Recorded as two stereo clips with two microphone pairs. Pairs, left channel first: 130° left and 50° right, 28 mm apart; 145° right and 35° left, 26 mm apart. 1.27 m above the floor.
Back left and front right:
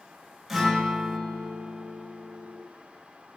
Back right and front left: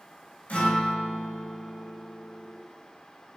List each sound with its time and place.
0.5 s a guitar: 135° right, 5 m